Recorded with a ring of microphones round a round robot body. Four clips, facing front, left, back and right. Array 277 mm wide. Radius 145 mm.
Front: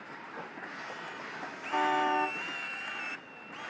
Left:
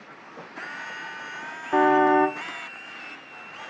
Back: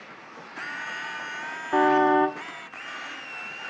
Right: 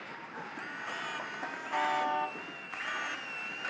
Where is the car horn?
125° left.